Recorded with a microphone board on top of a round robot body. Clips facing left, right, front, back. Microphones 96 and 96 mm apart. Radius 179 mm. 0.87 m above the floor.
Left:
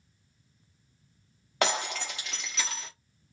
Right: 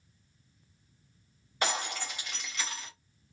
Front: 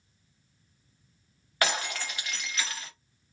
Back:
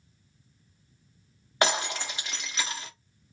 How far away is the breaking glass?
About 1.0 m.